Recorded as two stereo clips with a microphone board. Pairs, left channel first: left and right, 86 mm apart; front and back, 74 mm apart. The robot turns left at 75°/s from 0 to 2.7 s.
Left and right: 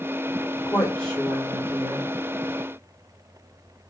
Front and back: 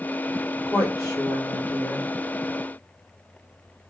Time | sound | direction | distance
0.7 | a woman speaking | 40° left | 3 m